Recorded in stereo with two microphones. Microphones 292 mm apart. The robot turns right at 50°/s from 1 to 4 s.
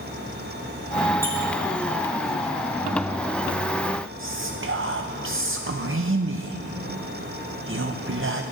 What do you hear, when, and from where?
1.2 s a squeak: 30° left (ahead or behind), 4 m; by 1.4 s 40° left (ahead or behind), 4 m
4.2 s whispering: 45° right (ahead or behind), 0.6 m